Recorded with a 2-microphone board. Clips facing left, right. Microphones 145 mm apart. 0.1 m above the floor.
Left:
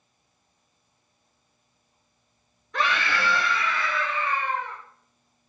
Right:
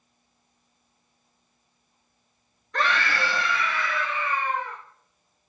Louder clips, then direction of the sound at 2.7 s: Even; 5° left (ahead or behind).